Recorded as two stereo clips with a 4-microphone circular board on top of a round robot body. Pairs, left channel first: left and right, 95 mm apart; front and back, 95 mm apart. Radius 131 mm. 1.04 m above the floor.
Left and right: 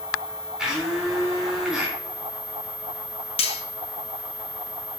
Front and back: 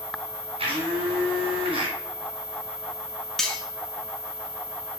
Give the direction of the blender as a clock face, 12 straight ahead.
6 o'clock.